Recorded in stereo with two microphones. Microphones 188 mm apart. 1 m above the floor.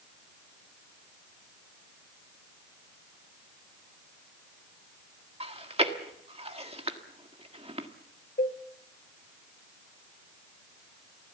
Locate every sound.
5.4 s chewing: 30° right (ahead or behind), 1.6 m
8.4 s a cowbell: 60° left (ahead or behind), 1.4 m